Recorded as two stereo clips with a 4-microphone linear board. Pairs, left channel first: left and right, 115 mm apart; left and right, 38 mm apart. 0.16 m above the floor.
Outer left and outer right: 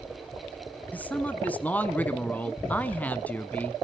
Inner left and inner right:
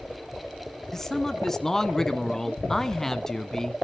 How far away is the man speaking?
About 1.3 m.